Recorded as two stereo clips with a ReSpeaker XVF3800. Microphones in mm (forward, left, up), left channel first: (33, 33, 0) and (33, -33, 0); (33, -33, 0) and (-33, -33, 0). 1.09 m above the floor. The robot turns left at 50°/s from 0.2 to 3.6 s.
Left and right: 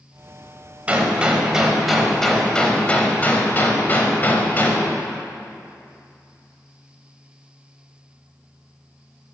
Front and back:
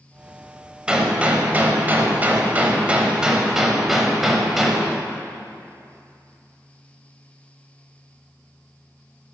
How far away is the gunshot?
About 0.9 m.